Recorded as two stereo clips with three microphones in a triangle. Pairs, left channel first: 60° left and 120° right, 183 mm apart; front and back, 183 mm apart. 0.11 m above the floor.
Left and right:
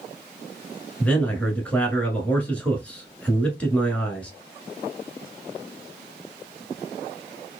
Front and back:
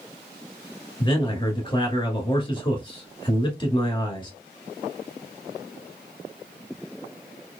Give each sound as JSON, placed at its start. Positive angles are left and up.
{"t": 1.0, "sound": "a man speaking", "azimuth_deg": -15, "distance_m": 1.3}